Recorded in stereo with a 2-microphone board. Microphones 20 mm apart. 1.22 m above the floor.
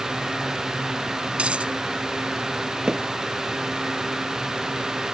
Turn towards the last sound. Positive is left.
turn(degrees=-55)  # may be behind; listen again after turning